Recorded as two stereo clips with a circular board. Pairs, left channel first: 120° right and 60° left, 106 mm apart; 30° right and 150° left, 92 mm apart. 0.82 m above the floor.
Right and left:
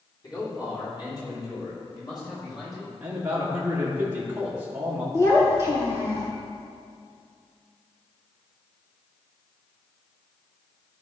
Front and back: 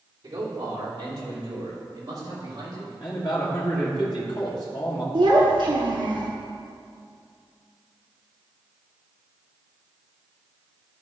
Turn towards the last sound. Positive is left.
turn(degrees=180)